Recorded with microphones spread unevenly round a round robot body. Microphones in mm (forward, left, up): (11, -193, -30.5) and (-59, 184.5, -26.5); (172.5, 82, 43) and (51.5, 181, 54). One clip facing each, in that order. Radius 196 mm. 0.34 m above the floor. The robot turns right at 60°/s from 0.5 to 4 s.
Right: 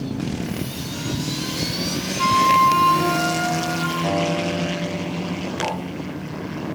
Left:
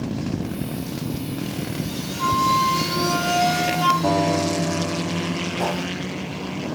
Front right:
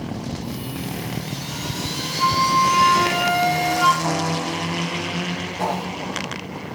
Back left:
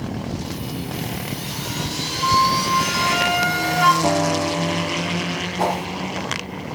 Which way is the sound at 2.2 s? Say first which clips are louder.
Right 1 dB, even; 50° right.